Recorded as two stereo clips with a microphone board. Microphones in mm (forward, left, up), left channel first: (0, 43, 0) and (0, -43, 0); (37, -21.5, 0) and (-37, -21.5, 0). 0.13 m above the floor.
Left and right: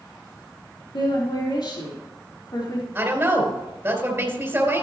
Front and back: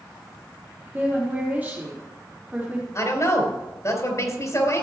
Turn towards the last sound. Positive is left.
turn(degrees=-30)